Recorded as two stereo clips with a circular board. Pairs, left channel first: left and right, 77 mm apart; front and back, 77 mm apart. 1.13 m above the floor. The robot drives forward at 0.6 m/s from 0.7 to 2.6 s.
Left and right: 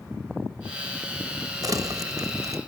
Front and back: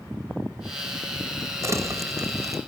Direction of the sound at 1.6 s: 130° right.